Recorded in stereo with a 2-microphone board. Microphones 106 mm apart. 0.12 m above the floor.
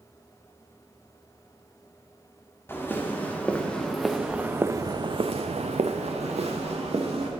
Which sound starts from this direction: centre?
Footsteps, at 2.7 s.